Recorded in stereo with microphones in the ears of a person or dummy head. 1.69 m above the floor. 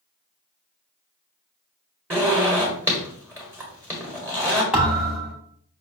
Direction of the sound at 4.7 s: 10° right (ahead or behind).